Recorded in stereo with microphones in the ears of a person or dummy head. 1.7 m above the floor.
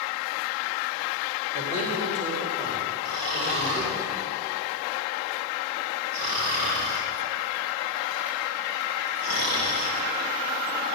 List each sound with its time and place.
1.5 s a man speaking: 60° right (ahead or behind), 5 m; by 4.0 s 35° right (ahead or behind), 6 m
3.0 s snoring: 60° right (ahead or behind), 4.5 m